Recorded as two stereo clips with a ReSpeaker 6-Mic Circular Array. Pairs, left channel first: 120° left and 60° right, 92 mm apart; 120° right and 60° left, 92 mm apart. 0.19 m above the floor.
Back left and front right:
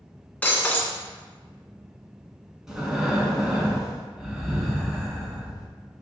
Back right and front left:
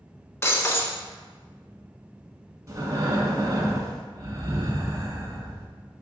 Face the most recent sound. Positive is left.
turn(degrees=20)